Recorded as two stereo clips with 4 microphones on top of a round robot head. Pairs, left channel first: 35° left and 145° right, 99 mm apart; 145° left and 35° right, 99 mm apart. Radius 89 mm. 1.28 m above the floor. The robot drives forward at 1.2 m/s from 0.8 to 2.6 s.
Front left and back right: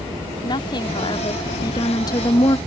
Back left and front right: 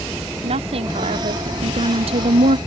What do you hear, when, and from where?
0.4 s a woman speaking: 10° right; by 2.6 s 20° right